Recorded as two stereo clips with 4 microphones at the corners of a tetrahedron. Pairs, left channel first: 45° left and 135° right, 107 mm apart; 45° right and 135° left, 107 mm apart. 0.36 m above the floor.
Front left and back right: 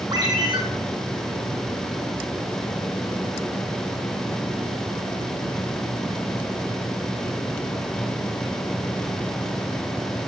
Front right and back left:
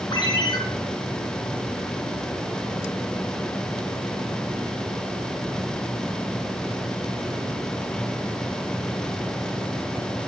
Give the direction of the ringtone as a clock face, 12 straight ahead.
3 o'clock.